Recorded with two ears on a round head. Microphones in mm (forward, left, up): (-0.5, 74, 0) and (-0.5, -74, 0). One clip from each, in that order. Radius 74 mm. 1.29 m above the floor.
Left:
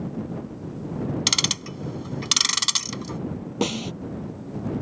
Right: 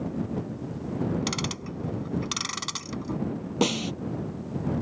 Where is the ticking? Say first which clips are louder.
Left 9 dB; 70° left (ahead or behind).